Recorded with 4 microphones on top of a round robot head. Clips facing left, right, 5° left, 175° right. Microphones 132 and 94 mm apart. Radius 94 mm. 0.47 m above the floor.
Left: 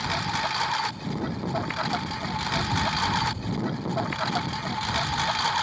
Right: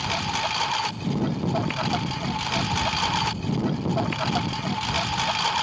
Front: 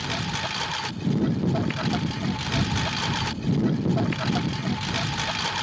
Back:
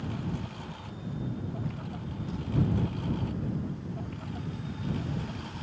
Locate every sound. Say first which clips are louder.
0.0 s a lawn mower: right 1 dB, front 6 dB; 15° right; by 5.6 s 10° right